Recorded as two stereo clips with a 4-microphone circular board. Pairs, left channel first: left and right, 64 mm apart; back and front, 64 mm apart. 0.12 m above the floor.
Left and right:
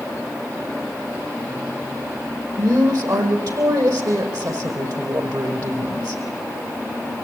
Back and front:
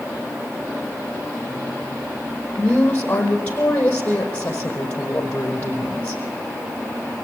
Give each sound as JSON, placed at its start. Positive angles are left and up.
{"t": 2.6, "sound": "a woman speaking", "azimuth_deg": -115, "distance_m": 4.5}